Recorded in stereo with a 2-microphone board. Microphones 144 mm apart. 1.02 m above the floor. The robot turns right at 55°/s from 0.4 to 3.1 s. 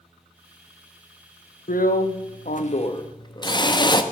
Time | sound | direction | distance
1.7 | a drill | 70° left | 0.9 m